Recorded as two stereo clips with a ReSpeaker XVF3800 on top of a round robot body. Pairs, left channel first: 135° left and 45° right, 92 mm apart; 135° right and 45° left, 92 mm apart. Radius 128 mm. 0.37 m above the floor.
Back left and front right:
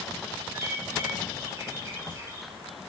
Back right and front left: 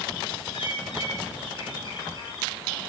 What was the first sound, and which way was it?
A bird, 105° right.